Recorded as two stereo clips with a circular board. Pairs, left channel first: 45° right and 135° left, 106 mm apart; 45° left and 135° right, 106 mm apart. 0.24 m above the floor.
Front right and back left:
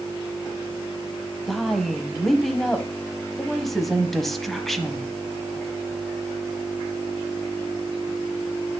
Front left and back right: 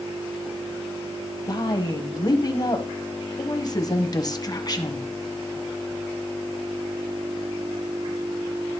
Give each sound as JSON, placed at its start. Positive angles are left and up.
{"t": 1.5, "sound": "a woman speaking", "azimuth_deg": 40, "distance_m": 1.1}